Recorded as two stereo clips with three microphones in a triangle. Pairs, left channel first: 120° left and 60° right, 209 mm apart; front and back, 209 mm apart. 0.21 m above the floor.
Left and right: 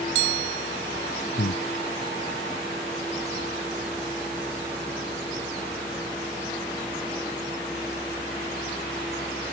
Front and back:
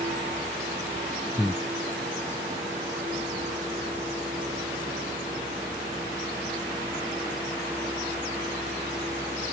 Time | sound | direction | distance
1.4 | breathing | 90° left | ?